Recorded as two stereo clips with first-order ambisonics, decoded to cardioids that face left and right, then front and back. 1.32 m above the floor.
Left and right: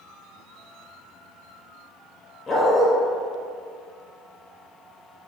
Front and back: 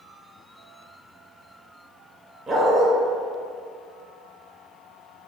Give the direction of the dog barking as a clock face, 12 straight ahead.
8 o'clock.